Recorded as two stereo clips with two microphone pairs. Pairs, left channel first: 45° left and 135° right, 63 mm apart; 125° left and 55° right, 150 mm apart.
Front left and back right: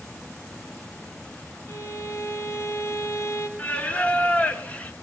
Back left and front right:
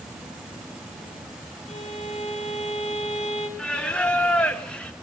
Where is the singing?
50° left, 1.1 m.